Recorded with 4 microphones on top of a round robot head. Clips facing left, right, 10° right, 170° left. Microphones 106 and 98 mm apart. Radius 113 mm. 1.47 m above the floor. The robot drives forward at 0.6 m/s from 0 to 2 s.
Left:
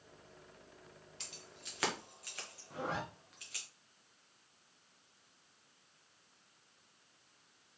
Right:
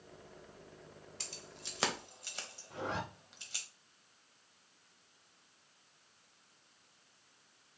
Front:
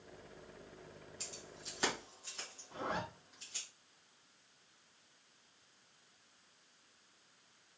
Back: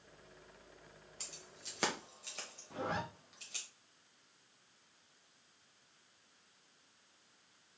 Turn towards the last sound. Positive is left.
turn(degrees=175)